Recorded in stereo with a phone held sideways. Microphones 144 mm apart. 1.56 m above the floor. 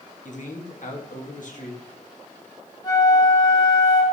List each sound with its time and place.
0.2 s a man speaking: 65° left (ahead or behind), 1.4 m
2.8 s a flute: 25° left (ahead or behind), 1.6 m